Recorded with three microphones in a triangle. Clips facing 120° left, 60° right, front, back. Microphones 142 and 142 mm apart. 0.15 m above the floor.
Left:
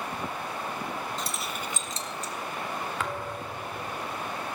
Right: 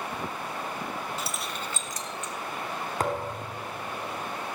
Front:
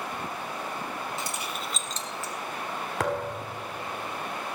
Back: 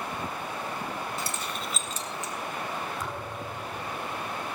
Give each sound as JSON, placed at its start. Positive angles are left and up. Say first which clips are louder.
{"t": 1.2, "sound": "keys jangling", "louder": "even, even", "azimuth_deg": 10, "distance_m": 1.0}
{"t": 3.0, "sound": "a thud", "louder": "right 4 dB, front 6 dB", "azimuth_deg": -10, "distance_m": 1.0}